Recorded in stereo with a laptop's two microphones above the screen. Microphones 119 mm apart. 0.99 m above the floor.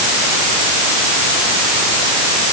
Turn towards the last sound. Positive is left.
No sound to turn to.